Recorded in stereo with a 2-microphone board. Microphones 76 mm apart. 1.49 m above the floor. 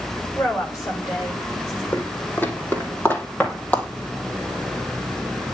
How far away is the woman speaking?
About 6.5 m.